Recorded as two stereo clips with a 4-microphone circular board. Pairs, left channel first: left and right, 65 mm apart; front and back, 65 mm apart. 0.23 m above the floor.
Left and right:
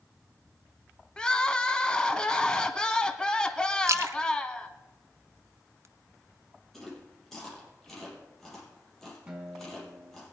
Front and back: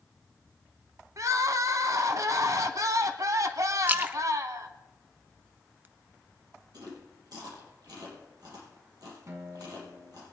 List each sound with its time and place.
1.2 s crying: 165° left, 1.0 m
3.9 s a splash: 120° right, 0.8 m
6.7 s chewing: 175° left, 6.5 m
9.3 s a guitar: 160° right, 1.9 m